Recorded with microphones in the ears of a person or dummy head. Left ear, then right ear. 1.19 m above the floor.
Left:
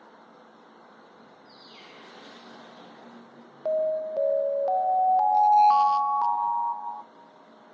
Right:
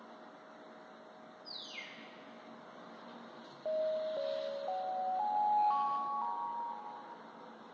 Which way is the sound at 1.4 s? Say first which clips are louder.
Right 4 dB; 75° right (ahead or behind).